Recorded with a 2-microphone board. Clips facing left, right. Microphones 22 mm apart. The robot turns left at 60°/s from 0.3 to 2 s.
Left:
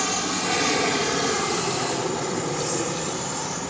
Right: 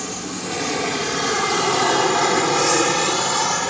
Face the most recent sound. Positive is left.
turn(degrees=-55)  # may be behind; listen again after turning